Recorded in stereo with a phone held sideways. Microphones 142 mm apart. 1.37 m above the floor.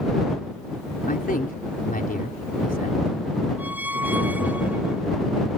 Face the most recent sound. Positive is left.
turn(degrees=-10)  # may be behind; listen again after turning